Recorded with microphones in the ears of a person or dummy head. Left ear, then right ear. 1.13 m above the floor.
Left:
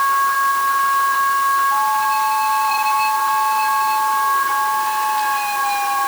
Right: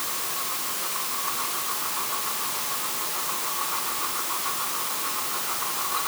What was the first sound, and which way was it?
Only background noise.